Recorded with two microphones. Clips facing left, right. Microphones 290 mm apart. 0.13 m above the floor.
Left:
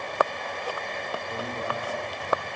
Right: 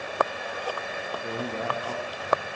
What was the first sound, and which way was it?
A man speaking, 75° right (ahead or behind).